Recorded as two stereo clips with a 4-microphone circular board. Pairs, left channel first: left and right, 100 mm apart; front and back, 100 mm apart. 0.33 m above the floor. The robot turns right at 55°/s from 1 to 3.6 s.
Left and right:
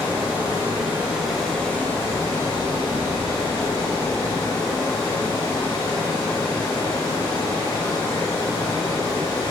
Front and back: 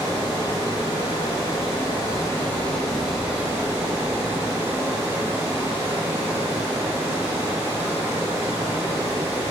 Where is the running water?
20° right, 1.2 m; by 9.5 s 120° left, 1.2 m.